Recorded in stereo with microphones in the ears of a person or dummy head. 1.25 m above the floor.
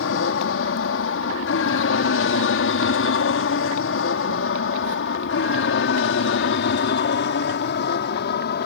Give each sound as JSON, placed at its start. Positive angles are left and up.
{"t": 0.0, "sound": "an aircraft", "side_deg": 65}